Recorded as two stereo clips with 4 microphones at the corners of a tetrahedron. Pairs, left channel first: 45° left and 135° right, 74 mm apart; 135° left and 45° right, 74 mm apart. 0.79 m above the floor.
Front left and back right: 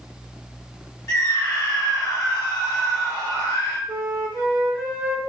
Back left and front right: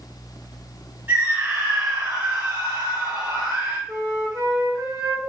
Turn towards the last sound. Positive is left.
turn(degrees=-70)